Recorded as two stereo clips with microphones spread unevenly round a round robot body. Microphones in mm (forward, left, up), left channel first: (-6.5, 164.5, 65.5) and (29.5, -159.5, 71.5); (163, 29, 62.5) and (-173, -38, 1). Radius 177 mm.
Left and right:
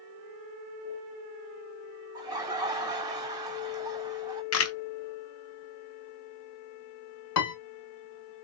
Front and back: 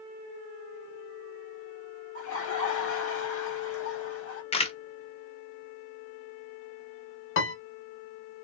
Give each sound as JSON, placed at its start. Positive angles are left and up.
{"t": 2.1, "sound": "laughter", "azimuth_deg": -15, "distance_m": 1.4}
{"t": 4.5, "sound": "a camera shutter", "azimuth_deg": 90, "distance_m": 1.0}
{"t": 7.4, "sound": "a piano", "azimuth_deg": 65, "distance_m": 1.2}